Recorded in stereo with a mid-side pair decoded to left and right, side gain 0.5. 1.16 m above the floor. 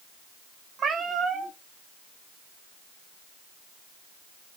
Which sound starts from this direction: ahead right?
A cat meowing, at 0.8 s.